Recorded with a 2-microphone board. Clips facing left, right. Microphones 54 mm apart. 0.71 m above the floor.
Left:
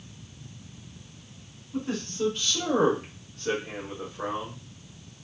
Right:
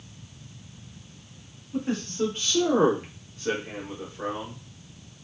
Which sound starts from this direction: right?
A man speaking, at 1.7 s.